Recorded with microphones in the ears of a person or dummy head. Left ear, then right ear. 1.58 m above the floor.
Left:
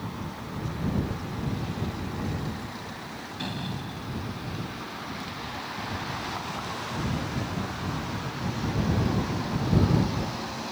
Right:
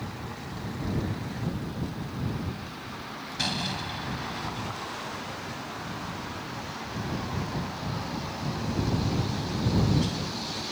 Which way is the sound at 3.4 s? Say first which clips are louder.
Right 7 dB; 45° right (ahead or behind).